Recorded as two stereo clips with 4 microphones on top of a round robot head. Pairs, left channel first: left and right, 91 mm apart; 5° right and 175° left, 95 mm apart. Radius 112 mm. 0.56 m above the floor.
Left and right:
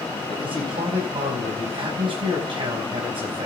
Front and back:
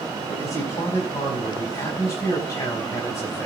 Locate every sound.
0.3 s a man speaking: 65° right, 4.5 m